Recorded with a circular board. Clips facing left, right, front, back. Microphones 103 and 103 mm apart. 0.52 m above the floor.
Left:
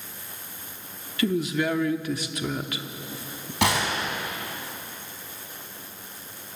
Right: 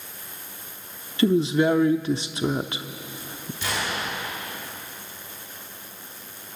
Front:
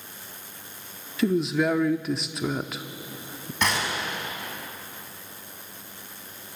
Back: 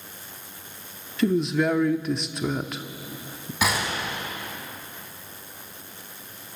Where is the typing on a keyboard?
No typing on a keyboard in this recording.